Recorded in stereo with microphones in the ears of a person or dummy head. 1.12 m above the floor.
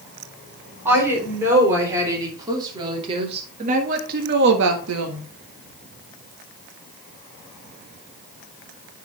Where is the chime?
No chime in this recording.